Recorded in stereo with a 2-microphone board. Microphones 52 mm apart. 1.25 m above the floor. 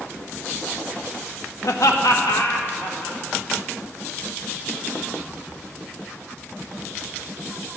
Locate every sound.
1.6 s laughter: 75° left (ahead or behind), 0.7 m; by 3.2 s 65° left (ahead or behind), 1.8 m